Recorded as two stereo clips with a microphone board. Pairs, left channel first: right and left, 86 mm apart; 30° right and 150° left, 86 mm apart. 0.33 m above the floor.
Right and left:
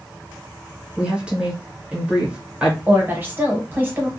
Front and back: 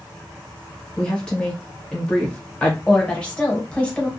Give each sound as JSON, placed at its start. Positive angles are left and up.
{"t": 1.0, "sound": "a woman speaking", "azimuth_deg": 35, "distance_m": 0.9}
{"t": 2.9, "sound": "a woman speaking", "azimuth_deg": 40, "distance_m": 1.0}